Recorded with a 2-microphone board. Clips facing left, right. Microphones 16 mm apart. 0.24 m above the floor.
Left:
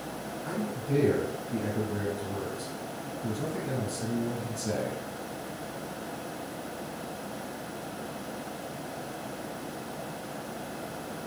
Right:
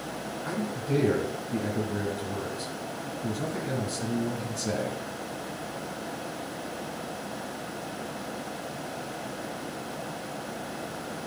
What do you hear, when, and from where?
0.5 s a man speaking: 20° right (ahead or behind), 1.6 m